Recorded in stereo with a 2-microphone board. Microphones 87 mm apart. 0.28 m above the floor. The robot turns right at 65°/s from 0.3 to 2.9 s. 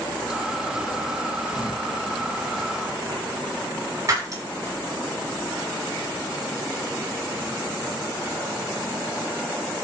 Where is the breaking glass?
40° right (ahead or behind), 7 m.